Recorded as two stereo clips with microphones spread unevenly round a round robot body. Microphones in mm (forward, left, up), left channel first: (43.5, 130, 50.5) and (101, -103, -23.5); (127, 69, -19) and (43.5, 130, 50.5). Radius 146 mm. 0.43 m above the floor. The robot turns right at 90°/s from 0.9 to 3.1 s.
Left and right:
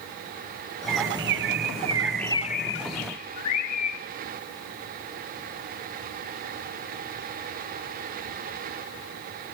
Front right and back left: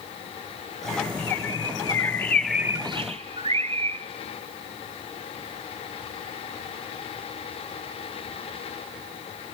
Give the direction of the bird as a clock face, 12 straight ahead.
4 o'clock.